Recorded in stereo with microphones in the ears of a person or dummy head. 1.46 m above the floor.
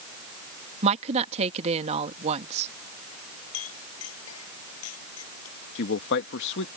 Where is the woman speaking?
40° right (ahead or behind).